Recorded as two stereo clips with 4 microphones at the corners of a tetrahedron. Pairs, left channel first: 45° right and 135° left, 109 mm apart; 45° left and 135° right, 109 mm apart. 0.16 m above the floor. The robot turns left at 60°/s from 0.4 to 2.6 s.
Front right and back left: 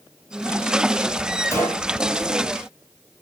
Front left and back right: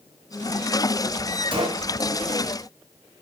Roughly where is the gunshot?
Right.